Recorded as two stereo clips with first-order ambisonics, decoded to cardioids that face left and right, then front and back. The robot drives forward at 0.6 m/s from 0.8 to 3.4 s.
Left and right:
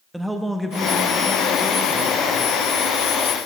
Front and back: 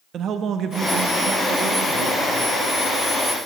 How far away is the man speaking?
About 0.5 m.